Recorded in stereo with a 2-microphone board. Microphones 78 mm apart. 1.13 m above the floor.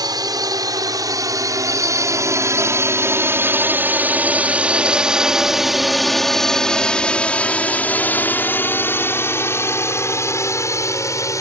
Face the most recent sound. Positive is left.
turn(degrees=40)  # may be behind; listen again after turning